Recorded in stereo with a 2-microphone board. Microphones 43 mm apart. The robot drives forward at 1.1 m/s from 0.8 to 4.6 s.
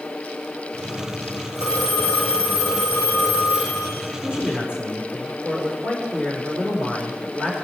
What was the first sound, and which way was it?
A phone ringing, 80° right.